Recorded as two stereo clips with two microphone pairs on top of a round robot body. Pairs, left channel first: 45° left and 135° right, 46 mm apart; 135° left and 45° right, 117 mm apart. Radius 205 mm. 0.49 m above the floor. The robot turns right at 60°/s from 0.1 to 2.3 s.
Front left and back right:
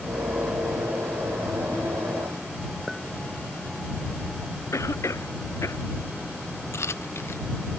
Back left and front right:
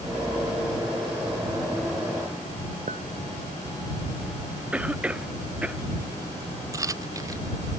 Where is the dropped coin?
20° left.